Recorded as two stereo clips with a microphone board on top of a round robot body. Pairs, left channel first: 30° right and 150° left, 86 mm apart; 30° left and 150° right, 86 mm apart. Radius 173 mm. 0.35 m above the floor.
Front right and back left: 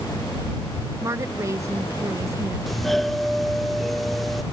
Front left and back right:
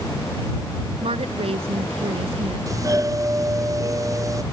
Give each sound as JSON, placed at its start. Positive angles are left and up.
{"t": 1.0, "sound": "a woman speaking", "azimuth_deg": -150}
{"t": 2.7, "sound": "a doorbell", "azimuth_deg": -120}